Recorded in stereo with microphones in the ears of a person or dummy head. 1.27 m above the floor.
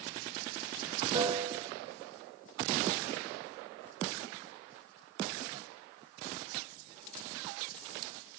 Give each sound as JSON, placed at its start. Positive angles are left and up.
{"t": 1.1, "sound": "a piano", "side_deg": -20, "distance_m": 0.9}